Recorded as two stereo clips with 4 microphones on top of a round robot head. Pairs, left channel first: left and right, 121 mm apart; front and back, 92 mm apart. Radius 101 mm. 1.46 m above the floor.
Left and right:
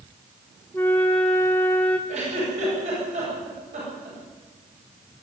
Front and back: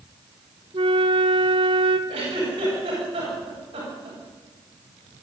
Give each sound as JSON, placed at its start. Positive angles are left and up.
{"t": 0.7, "sound": "a flute", "azimuth_deg": 170, "distance_m": 1.4}
{"t": 2.1, "sound": "a giggle", "azimuth_deg": -135, "distance_m": 8.5}